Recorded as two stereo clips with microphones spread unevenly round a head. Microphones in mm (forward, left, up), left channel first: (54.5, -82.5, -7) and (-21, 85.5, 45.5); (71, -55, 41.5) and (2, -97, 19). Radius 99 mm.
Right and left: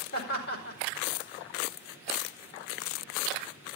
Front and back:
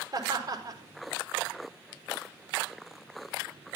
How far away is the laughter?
About 5 m.